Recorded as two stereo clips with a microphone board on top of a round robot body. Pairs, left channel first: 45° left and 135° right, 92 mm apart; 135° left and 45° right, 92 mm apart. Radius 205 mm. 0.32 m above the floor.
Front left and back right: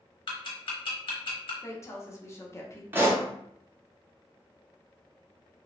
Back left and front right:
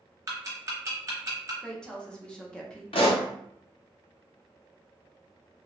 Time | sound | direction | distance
0.3 | ticking | 15° left | 0.7 m
1.6 | a woman speaking | 60° left | 1.0 m
2.9 | a pop | 155° left | 0.7 m